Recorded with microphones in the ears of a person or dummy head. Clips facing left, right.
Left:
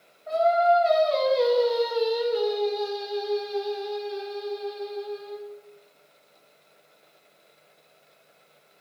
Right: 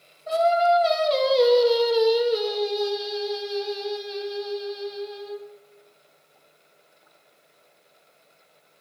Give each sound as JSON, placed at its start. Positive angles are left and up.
{"t": 0.3, "sound": "singing", "side_deg": -50, "distance_m": 1.5}